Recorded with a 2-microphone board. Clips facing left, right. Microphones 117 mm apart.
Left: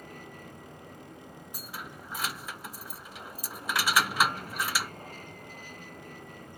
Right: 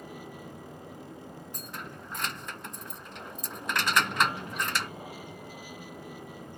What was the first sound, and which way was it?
An aircraft, 10° right (ahead or behind).